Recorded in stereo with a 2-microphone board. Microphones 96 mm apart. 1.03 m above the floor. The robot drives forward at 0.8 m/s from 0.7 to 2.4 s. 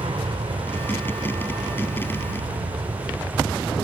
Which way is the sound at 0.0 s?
70° right (ahead or behind).